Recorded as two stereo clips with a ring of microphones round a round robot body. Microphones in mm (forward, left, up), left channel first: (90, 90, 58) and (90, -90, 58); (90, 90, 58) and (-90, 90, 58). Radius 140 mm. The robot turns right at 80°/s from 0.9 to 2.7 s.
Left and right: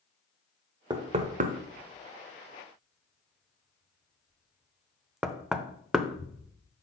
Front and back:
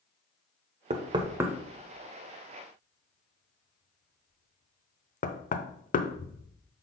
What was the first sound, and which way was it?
Knocking, 145° right.